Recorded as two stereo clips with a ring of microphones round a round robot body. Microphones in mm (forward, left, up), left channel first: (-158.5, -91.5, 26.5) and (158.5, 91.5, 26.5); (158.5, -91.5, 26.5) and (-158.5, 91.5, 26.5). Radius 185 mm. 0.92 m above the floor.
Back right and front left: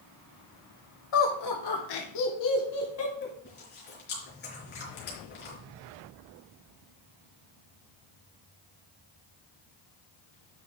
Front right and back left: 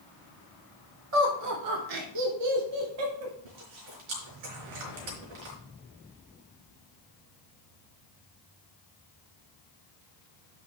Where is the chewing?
145° left, 4 m.